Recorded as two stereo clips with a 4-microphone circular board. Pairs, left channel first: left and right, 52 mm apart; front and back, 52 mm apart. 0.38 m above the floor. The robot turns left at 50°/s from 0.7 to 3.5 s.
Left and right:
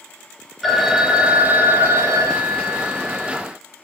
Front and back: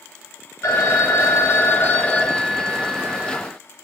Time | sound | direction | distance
0.6 | a phone ringing | 5° left | 0.9 m